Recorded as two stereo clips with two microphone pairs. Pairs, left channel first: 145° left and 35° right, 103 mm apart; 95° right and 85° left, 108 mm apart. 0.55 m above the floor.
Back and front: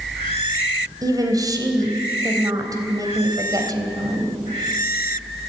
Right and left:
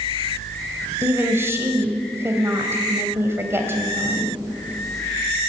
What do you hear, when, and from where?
1.0 s a woman speaking: 20° left, 3.5 m